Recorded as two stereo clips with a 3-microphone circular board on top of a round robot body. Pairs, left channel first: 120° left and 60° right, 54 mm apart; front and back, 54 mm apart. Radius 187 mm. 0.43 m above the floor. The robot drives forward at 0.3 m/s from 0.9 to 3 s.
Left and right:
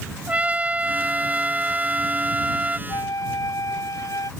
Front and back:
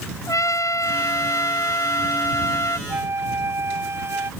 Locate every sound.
0.3 s a trumpet: 5° left
2.9 s a flute: 135° left